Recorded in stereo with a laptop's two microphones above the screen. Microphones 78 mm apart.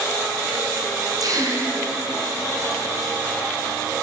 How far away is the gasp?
About 6 m.